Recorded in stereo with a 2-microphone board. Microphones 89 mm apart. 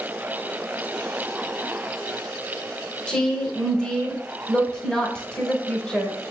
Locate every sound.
3.1 s a woman speaking: 10° left (ahead or behind), 0.9 m